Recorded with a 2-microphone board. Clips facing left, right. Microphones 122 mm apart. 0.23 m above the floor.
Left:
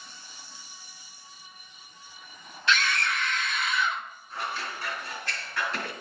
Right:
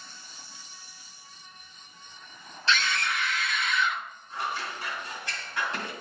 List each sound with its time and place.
2.7 s a scream: 30° right (ahead or behind), 1.5 m; by 4.0 s 20° left (ahead or behind), 1.5 m
4.3 s scissors: 25° right (ahead or behind), 2.5 m